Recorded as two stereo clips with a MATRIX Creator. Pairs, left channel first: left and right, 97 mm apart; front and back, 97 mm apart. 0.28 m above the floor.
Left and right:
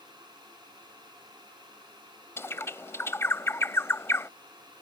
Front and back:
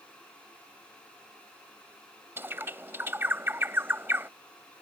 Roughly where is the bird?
Behind left.